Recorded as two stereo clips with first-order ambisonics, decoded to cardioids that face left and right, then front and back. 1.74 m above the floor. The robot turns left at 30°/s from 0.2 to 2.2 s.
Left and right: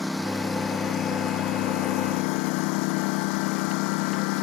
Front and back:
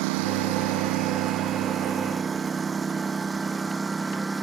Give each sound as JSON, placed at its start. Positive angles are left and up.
{"t": 0.0, "sound": "a lawn mower", "azimuth_deg": 175}